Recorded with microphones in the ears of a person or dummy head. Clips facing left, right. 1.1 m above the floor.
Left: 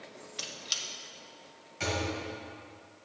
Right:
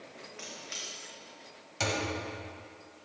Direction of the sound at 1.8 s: 65° right (ahead or behind).